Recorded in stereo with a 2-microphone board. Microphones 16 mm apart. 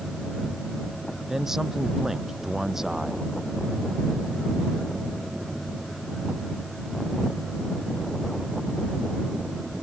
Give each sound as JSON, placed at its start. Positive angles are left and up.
{"t": 1.3, "sound": "a man speaking", "side_deg": -25}